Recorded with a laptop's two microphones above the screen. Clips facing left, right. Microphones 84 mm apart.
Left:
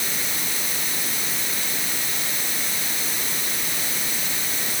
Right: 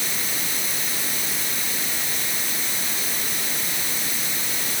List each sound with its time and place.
Only background noise.